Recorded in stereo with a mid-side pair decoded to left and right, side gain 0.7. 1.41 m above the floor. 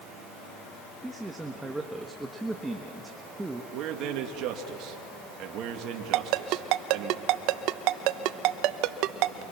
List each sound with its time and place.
1.0 s a man speaking: 10° right, 1.5 m
3.7 s a man speaking: 55° right, 2.5 m
6.1 s a ringtone: 65° right, 0.9 m